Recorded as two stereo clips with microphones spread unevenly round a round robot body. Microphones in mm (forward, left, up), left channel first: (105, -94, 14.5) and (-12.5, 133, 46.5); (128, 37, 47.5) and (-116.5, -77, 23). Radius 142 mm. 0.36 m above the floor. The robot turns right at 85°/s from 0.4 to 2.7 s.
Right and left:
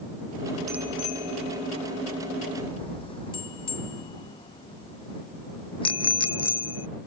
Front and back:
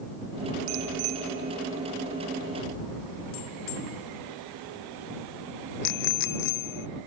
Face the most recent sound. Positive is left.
turn(degrees=10)